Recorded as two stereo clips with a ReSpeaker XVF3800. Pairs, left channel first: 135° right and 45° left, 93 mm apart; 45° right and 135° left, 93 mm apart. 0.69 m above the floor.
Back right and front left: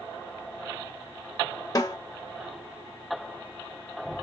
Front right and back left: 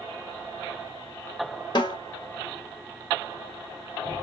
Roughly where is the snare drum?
Right.